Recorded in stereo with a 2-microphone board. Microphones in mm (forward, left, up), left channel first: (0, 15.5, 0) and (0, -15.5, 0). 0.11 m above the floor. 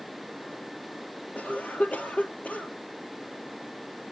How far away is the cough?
About 2.5 m.